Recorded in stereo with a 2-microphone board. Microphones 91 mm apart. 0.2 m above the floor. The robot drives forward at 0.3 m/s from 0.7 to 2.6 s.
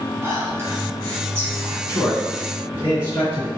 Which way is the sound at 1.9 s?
15° right (ahead or behind).